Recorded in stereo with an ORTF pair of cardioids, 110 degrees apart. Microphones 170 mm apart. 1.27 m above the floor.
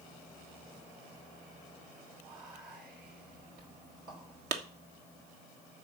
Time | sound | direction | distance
2.2 | whispering | 65° right | 6 m
4.5 | a clap | 70° right | 1.6 m